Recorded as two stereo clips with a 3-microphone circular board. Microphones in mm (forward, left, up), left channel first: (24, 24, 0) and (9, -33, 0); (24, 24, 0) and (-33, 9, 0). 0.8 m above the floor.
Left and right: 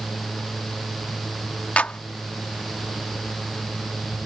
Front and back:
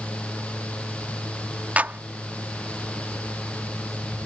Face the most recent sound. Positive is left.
turn(degrees=135)